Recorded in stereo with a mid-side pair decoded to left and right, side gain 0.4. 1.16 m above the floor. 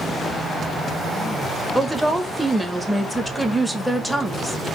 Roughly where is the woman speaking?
Ahead.